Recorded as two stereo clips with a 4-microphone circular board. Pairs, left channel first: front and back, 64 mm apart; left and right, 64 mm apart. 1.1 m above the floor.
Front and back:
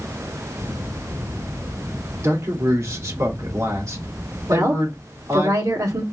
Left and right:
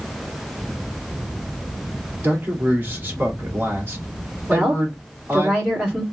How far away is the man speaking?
About 2.5 m.